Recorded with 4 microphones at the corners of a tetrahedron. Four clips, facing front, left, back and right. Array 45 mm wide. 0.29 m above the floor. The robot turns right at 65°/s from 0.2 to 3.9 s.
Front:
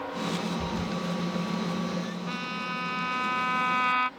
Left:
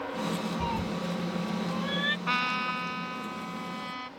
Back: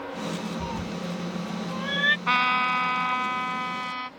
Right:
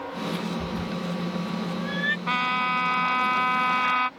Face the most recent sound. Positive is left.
turn(degrees=-60)